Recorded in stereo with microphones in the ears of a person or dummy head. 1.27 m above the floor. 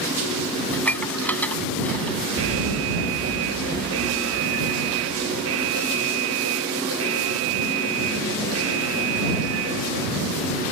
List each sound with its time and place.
0.7 s dishes clattering: 5° left (ahead or behind)
2.4 s an alarm: 70° right (ahead or behind)